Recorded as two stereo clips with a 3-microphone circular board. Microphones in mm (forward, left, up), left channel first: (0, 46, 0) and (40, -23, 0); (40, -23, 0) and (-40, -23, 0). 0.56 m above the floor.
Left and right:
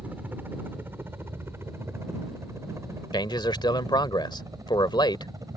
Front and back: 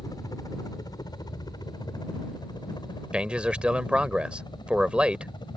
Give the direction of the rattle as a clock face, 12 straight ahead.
No rattle in this recording.